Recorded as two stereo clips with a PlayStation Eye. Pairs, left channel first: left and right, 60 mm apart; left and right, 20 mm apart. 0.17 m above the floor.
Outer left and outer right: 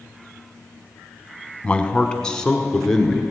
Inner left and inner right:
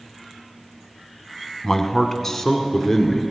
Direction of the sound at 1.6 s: 20° left (ahead or behind).